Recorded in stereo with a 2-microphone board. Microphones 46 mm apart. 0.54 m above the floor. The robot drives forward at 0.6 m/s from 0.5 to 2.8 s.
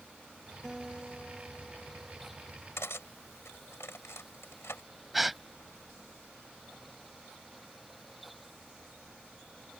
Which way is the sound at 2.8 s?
70° left (ahead or behind).